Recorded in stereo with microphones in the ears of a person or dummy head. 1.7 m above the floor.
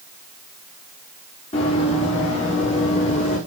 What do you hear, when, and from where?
1.5 s running footsteps: 35° left (ahead or behind), 6 m; by 3.4 s 45° left (ahead or behind), 7 m